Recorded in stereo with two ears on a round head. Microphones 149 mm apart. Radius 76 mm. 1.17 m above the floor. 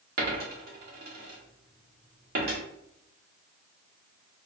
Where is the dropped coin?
60° right (ahead or behind), 1.2 m.